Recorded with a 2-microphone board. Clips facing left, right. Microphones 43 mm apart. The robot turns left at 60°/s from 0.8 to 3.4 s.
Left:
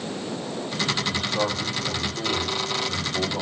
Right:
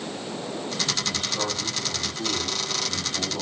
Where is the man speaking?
Straight behind, 3 m; by 3.4 s 40° left, 3 m.